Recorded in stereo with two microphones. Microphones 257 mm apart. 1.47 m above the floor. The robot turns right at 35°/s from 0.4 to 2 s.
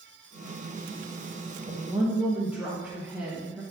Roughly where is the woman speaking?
Centre.